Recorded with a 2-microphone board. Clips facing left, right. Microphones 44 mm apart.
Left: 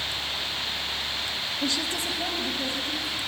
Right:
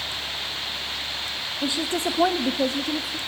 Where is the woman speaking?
10° right (ahead or behind), 1.0 m; by 3.2 s 80° right, 2.5 m.